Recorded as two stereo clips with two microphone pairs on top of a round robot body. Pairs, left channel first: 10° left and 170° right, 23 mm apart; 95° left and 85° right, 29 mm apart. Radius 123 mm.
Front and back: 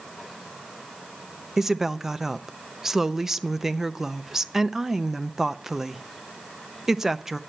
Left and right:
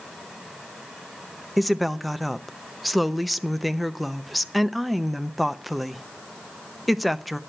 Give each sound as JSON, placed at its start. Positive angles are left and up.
{"t": 1.6, "sound": "a woman speaking", "azimuth_deg": -155, "distance_m": 0.9}